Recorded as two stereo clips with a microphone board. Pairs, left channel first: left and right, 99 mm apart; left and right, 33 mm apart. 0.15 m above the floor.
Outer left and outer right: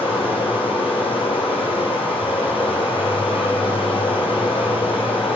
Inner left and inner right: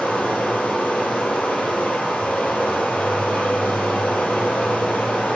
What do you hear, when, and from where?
0.0 s running water: 65° left (ahead or behind), 1.1 m